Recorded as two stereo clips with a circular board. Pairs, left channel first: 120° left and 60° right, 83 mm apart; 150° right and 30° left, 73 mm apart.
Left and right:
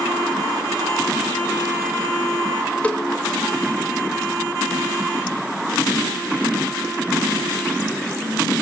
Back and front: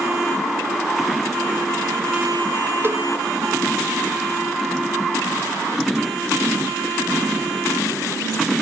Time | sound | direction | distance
2.8 | a cowbell | 60° left | 0.6 m